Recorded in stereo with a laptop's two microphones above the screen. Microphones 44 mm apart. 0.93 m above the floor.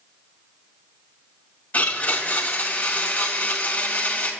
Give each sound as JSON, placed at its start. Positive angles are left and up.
{"t": 1.7, "sound": "a blender", "side_deg": 35, "distance_m": 1.6}